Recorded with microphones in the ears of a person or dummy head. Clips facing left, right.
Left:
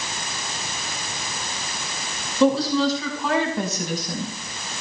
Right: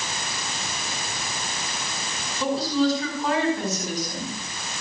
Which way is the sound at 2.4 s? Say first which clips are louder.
Left 4 dB; 70° left (ahead or behind).